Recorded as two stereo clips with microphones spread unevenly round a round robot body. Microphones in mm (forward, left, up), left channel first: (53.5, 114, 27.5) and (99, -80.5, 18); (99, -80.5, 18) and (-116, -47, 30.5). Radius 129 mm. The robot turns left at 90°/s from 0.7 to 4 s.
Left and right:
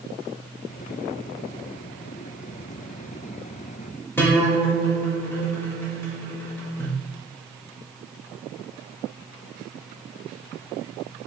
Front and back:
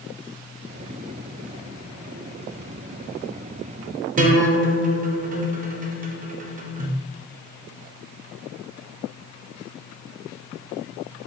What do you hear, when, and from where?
4.2 s a guitar: straight behind, 0.5 m